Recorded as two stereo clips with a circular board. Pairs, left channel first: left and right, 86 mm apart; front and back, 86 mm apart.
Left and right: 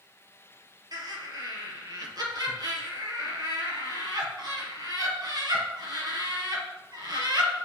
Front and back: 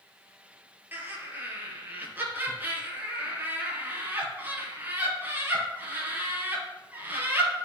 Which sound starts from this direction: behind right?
Laughter, at 0.9 s.